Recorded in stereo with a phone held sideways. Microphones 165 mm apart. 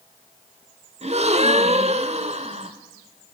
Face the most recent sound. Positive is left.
turn(degrees=-40)  # may be behind; listen again after turning